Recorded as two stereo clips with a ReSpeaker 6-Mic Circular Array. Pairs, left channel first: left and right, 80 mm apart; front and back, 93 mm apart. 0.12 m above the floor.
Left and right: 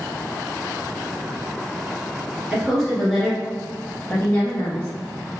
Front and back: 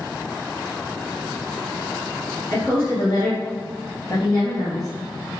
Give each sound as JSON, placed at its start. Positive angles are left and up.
{"t": 2.5, "sound": "a woman speaking", "azimuth_deg": -20, "distance_m": 1.8}